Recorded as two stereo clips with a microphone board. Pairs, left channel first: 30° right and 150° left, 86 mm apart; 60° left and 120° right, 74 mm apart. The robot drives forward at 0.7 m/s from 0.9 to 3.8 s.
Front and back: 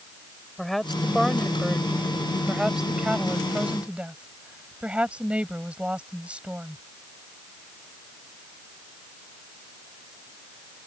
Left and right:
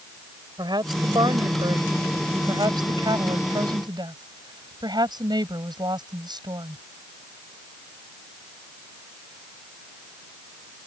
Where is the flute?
No flute in this recording.